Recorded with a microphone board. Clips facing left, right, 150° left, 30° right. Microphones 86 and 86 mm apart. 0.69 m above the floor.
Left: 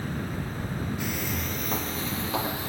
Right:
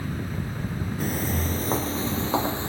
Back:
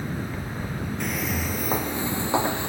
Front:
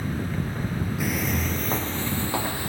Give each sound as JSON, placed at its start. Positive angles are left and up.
{"t": 1.0, "sound": "footsteps", "azimuth_deg": -115, "distance_m": 0.8}